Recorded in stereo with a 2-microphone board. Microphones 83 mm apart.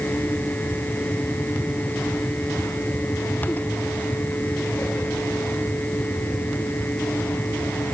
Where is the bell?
No bell in this recording.